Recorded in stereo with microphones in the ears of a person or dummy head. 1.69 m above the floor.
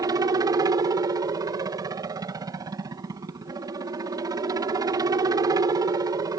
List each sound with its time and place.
0.0 s a helicopter: 15° right (ahead or behind)